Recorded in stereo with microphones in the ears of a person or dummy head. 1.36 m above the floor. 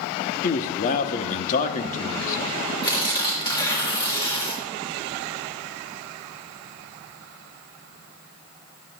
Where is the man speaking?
35° left (ahead or behind), 1.0 m.